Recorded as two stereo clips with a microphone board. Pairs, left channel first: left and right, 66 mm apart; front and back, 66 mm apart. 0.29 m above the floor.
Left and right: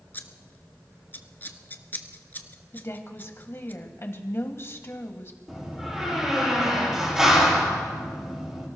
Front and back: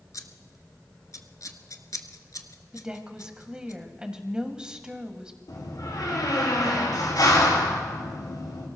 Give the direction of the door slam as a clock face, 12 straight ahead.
12 o'clock.